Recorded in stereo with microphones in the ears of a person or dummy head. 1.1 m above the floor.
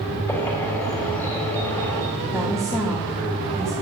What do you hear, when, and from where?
0.3 s a bird: 10° left (ahead or behind), 3.5 m
2.3 s a woman speaking: 5° left (ahead or behind), 2 m